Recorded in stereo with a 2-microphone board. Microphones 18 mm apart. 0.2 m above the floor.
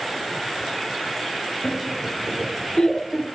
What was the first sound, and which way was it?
Laughter, 20° left (ahead or behind).